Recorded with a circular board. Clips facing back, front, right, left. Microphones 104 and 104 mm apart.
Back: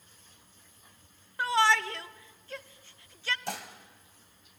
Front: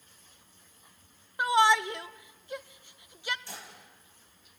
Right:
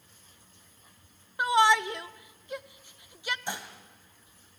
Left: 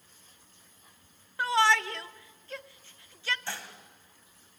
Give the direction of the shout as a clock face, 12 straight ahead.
1 o'clock.